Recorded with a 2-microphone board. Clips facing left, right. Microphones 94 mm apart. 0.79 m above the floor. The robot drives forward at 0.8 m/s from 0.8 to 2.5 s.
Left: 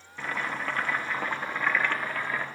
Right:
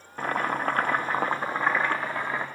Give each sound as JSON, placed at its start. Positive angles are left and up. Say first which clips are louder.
{"t": 0.2, "sound": "boiling", "louder": "right 5 dB", "side_deg": -45, "distance_m": 0.9}